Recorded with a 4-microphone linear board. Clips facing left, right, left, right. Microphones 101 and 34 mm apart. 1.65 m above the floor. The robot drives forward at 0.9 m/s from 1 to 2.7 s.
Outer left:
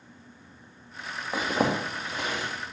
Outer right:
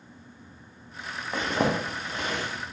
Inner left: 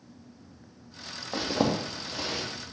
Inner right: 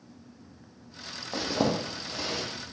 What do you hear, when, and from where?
1.3 s a zipper: 10° left (ahead or behind), 0.6 m; by 2.4 s 5° left (ahead or behind), 1.6 m